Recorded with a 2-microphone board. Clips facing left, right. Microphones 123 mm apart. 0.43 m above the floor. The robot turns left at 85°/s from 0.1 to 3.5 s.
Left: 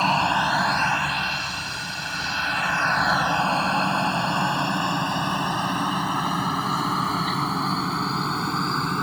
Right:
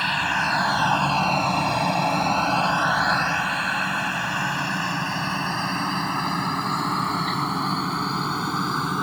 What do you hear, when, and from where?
0.0 s a helicopter: 35° left (ahead or behind); by 9.0 s 5° right (ahead or behind)